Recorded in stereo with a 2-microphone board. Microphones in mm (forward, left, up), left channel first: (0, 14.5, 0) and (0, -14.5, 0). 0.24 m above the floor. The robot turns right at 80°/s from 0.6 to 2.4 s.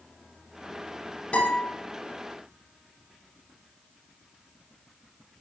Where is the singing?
No singing in this recording.